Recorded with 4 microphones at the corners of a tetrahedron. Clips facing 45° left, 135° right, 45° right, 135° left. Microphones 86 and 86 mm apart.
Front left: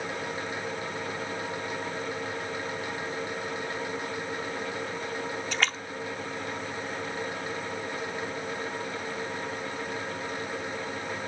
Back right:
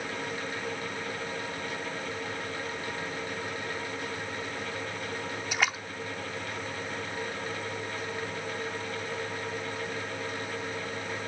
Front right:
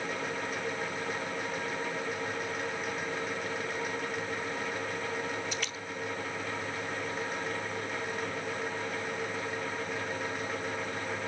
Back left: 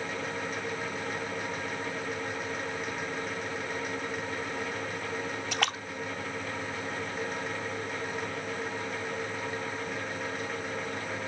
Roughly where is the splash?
Behind left.